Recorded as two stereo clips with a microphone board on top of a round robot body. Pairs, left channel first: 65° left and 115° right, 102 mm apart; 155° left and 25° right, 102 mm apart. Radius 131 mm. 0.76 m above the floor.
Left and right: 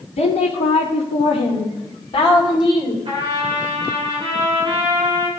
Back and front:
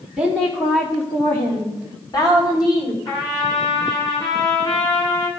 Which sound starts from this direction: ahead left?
A woman speaking, at 0.2 s.